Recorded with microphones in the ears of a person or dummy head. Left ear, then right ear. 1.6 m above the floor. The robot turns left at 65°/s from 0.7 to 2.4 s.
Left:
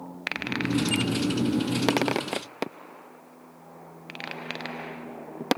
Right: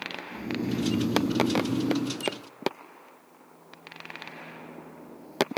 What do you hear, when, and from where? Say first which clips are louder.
0.3 s snoring: left 6 dB; 85° right, 1.9 m; by 2.2 s 175° left, 1.9 m